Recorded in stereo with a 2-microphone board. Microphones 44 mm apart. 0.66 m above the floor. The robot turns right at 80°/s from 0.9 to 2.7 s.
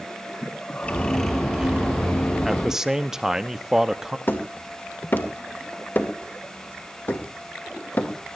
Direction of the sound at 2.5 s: 5° right (ahead or behind).